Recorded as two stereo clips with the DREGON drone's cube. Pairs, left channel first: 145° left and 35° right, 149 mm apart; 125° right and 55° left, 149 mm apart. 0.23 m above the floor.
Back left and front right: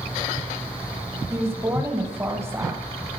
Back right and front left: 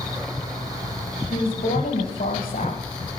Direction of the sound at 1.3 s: 105° right.